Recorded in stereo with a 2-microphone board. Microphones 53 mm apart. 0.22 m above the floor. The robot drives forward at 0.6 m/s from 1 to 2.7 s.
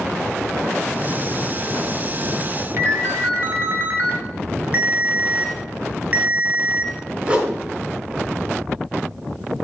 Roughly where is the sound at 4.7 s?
Right.